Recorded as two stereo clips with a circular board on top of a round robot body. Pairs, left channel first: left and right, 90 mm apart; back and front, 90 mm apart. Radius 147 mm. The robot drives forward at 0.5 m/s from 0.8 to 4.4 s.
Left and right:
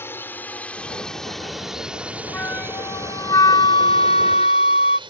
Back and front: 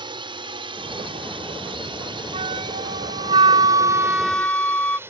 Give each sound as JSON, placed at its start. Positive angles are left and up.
{"t": 0.0, "sound": "a drone", "azimuth_deg": 25}
{"t": 2.3, "sound": "a flute", "azimuth_deg": 20}